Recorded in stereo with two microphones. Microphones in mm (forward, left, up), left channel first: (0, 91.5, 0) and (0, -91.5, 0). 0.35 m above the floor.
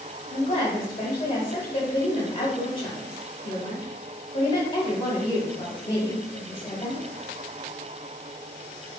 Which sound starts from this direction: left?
A woman speaking, at 0.3 s.